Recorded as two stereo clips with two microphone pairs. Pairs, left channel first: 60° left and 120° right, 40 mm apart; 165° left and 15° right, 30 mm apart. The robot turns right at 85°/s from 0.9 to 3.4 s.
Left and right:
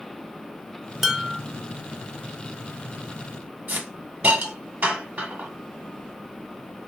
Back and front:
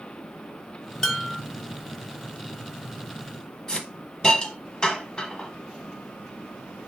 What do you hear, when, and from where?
1.0 s dishes clattering: 155° left, 0.6 m; by 1.4 s 170° right, 0.6 m
3.7 s a hiss: 135° right, 1.0 m